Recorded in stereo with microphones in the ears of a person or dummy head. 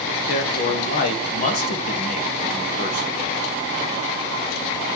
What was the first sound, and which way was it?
A man speaking, 55° left (ahead or behind).